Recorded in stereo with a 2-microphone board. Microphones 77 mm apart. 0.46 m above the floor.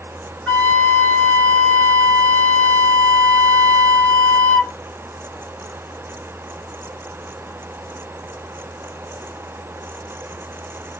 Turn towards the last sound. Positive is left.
turn(degrees=15)  # may be behind; listen again after turning